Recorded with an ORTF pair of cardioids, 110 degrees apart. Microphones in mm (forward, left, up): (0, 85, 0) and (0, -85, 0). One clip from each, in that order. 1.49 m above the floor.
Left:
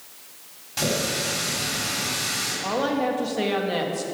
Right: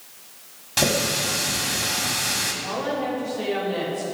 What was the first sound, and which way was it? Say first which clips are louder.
A running tap: right 3 dB; 40° right.